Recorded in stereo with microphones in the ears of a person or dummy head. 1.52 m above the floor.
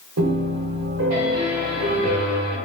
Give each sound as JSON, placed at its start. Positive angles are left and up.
{"t": 0.2, "sound": "a piano", "side_deg": -75, "distance_m": 1.2}